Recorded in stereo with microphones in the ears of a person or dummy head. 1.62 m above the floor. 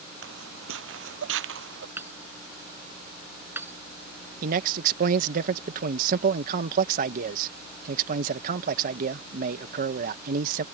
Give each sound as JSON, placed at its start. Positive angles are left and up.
{"t": 0.2, "sound": "footsteps", "side_deg": -75}
{"t": 2.0, "sound": "hammering", "side_deg": -10}
{"t": 4.4, "sound": "a man speaking", "side_deg": -50}